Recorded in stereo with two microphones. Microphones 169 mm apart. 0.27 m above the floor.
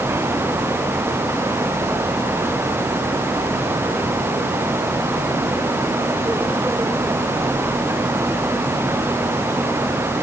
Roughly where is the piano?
No piano in this recording.